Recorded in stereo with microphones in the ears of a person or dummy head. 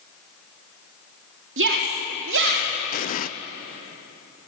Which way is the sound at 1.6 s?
60° right (ahead or behind).